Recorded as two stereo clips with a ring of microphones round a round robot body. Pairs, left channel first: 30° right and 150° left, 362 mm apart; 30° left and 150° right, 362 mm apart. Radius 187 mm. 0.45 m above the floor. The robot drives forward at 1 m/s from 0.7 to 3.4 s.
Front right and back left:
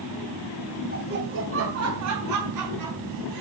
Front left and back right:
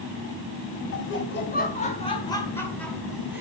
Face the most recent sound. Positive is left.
turn(degrees=125)